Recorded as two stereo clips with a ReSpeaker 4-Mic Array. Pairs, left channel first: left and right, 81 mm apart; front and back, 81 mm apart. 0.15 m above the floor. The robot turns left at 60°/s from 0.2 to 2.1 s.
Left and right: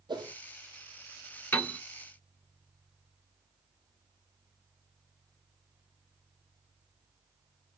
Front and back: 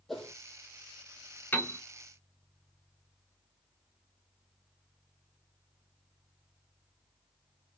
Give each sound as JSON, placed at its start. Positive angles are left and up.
{"t": 0.1, "sound": "a whoosh", "azimuth_deg": -85, "distance_m": 0.9}
{"t": 1.5, "sound": "a piano", "azimuth_deg": 45, "distance_m": 1.0}